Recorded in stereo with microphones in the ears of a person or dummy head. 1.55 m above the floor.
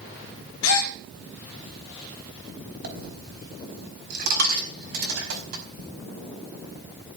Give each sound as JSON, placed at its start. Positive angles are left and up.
{"t": 0.6, "sound": "a gasp", "side_deg": 85, "distance_m": 1.5}
{"t": 2.8, "sound": "a dropped coin", "side_deg": -60, "distance_m": 4.5}